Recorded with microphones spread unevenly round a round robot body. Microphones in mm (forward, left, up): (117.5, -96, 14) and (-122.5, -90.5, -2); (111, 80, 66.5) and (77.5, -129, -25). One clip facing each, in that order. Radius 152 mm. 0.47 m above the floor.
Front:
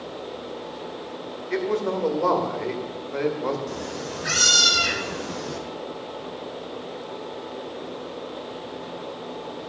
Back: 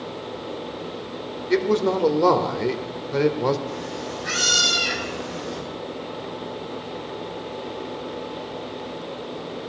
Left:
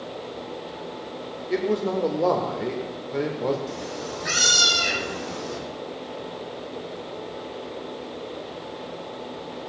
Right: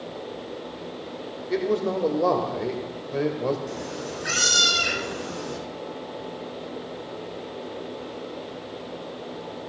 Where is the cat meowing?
20° right, 4 m.